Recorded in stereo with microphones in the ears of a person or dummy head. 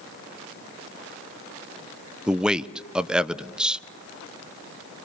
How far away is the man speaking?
About 0.7 m.